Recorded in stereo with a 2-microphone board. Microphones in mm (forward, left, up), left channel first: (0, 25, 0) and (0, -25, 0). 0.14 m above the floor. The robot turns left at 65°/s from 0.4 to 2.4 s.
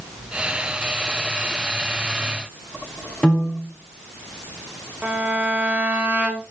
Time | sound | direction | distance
3.2 | a piano | 20° left (ahead or behind) | 7.5 m
5.0 | a violin | 25° right (ahead or behind) | 4 m